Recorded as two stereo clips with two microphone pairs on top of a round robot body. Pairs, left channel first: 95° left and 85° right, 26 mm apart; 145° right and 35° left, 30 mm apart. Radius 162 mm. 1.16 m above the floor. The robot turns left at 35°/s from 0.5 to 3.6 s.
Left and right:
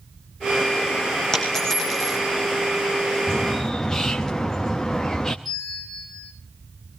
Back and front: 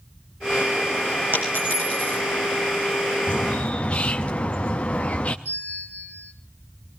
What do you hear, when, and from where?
1.3 s a dropped coin: 30° left, 3 m; by 2.2 s straight ahead, 3 m
3.3 s a bird: straight behind, 0.6 m; by 5.3 s 165° left, 0.6 m
5.5 s a bell: 5° left, 5 m